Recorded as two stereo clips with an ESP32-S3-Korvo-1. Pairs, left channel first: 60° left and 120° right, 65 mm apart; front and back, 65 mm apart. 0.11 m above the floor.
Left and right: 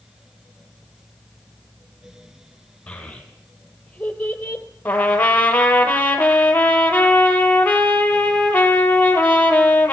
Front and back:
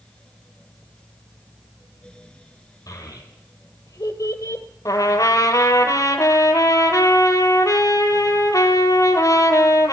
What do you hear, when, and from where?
2.9 s a child speaking: 10° right, 3 m; by 4.7 s straight ahead, 1.7 m
4.8 s a trumpet: straight ahead, 1.4 m